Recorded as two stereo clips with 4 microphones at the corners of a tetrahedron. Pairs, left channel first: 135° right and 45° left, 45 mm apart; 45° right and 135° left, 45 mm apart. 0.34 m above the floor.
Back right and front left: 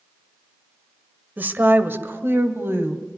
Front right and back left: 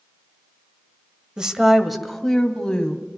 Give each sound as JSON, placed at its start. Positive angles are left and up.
{"t": 1.4, "sound": "a woman speaking", "azimuth_deg": 70, "distance_m": 1.2}